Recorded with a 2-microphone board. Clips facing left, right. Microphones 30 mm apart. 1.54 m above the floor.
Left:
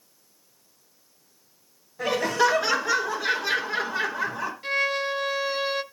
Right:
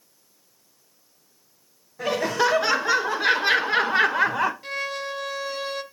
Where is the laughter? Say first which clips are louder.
Even; 5° right (ahead or behind), 1.3 m; by 4.5 s 75° right (ahead or behind), 1.2 m.